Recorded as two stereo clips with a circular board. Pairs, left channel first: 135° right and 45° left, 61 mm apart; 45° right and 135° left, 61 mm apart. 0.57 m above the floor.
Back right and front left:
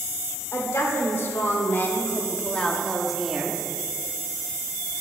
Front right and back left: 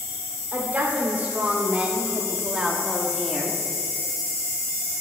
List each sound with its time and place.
0.5 s a woman speaking: 165° right, 1.7 m; by 3.7 s 30° left, 0.9 m